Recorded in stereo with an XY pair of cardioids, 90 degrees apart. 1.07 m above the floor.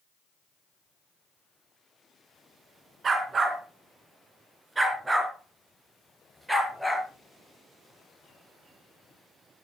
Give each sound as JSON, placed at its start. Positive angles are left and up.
{"t": 3.0, "sound": "a dog barking", "azimuth_deg": -50, "distance_m": 4.5}